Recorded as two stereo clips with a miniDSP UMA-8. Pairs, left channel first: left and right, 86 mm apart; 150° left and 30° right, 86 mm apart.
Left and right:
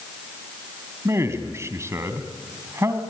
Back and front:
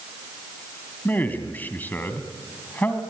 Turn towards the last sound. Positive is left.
turn(degrees=-145)